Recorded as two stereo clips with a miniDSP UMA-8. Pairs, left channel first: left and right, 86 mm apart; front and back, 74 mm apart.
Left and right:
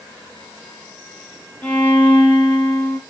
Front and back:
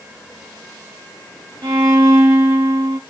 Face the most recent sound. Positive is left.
turn(degrees=160)